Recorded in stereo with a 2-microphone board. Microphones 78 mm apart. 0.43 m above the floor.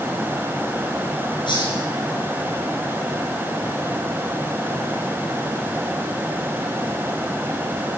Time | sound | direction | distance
1.5 | a hiss | 80° left | 7.5 m